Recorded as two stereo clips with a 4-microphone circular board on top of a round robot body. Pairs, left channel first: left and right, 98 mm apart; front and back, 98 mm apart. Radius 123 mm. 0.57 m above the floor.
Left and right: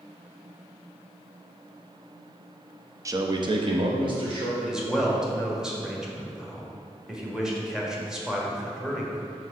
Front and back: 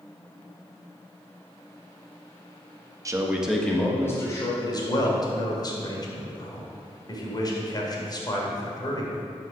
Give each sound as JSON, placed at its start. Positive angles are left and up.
{"t": 3.0, "sound": "a man speaking", "azimuth_deg": -140, "distance_m": 0.9}
{"t": 4.6, "sound": "a man speaking", "azimuth_deg": -10, "distance_m": 1.6}